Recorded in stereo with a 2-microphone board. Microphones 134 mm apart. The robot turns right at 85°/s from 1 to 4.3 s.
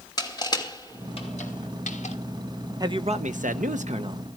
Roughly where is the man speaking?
Behind right.